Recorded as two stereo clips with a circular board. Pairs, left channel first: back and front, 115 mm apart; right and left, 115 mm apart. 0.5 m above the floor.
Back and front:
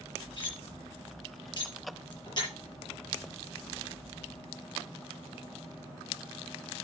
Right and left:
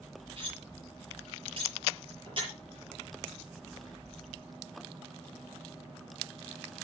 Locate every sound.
0.4 s cutlery clinking: 130° left, 7 m